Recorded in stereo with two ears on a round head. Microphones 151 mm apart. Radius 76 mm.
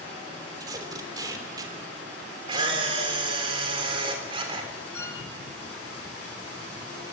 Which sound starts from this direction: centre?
A violin, at 4.9 s.